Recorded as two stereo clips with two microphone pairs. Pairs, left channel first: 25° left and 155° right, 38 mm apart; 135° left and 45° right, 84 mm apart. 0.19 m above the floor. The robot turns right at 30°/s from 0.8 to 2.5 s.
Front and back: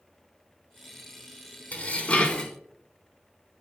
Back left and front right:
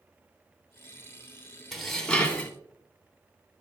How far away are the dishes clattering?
About 0.8 m.